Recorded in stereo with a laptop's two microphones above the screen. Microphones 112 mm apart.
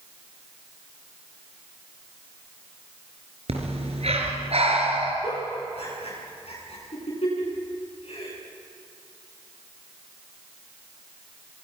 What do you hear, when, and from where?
3.5 s breathing: 70° right (ahead or behind), 4 m
5.2 s a giggle: 70° left (ahead or behind), 8.5 m